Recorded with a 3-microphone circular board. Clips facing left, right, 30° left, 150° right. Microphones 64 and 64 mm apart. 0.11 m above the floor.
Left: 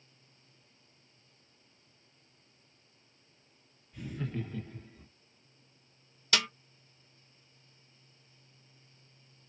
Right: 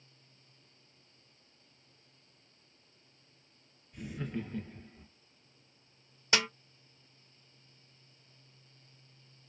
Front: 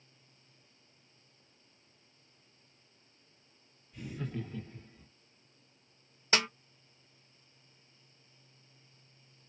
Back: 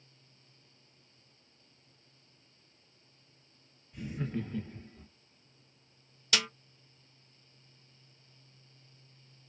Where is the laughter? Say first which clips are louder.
Even, back 3 dB; 155° right, 1.4 m; by 5.1 s 160° right, 1.8 m.